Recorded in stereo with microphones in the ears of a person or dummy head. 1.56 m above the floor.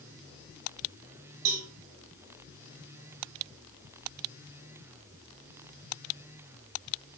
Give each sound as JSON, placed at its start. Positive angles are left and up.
{"t": 1.4, "sound": "a cowbell", "side_deg": -80, "distance_m": 5.0}